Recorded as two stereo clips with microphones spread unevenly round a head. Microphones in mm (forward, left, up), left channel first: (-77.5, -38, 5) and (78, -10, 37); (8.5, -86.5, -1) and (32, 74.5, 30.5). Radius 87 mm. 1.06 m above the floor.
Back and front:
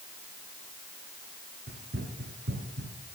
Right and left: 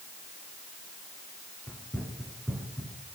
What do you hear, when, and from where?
1.7 s running footsteps: 15° right, 4 m; by 3.1 s 5° left, 5 m